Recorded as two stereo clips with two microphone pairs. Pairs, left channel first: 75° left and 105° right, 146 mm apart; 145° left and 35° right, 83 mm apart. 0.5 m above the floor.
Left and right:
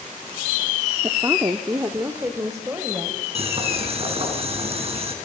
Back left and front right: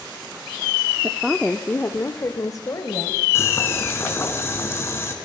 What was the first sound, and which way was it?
A woman speaking, 65° right.